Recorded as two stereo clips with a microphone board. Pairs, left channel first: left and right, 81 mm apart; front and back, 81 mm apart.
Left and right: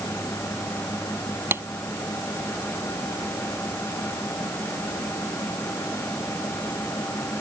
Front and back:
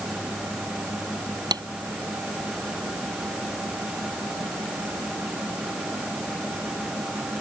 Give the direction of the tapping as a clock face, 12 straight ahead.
5 o'clock.